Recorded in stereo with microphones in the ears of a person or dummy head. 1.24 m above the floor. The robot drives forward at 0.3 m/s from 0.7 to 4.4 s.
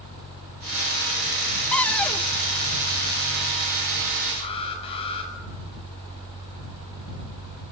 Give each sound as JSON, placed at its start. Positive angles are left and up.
{"t": 1.7, "sound": "a cupboard door", "side_deg": 10, "distance_m": 0.5}
{"t": 4.3, "sound": "an alarm", "side_deg": 25, "distance_m": 6.5}